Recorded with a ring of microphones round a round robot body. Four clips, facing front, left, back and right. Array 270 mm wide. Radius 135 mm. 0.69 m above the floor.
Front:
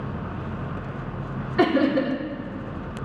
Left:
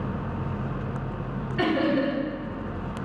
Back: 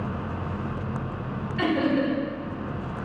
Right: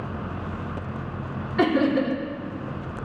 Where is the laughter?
30° right, 2 m.